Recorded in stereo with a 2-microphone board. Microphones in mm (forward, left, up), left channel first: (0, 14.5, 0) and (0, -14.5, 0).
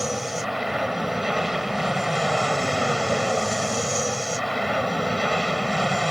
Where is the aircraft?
10° right (ahead or behind).